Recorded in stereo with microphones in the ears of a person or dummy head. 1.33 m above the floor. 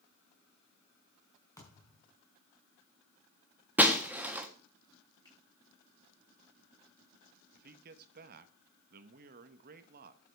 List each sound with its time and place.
1.6 s a thud: 20° left (ahead or behind), 4.5 m
3.8 s breaking glass: 10° right (ahead or behind), 1.5 m
5.2 s a finger snap: 25° left (ahead or behind), 7.5 m
7.5 s a man speaking: 55° right (ahead or behind), 1.3 m